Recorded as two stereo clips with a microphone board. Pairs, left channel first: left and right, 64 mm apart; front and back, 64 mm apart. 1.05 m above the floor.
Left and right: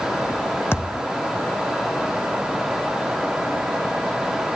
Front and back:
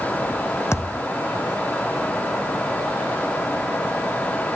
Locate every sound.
0.7 s a thud: 45° left